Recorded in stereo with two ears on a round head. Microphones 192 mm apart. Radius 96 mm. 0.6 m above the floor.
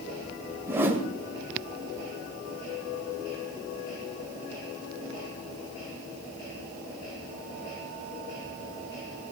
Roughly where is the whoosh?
Centre.